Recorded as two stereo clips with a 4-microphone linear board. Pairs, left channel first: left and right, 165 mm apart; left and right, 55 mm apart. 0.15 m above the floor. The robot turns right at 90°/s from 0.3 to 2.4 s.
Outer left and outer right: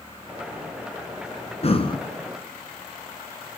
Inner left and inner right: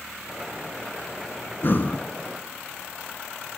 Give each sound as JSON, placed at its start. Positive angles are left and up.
{"t": 1.6, "sound": "breathing", "azimuth_deg": 100, "distance_m": 1.8}